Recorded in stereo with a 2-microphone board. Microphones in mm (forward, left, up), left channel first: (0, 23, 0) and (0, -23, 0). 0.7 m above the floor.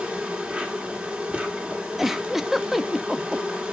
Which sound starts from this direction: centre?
A giggle, at 2.0 s.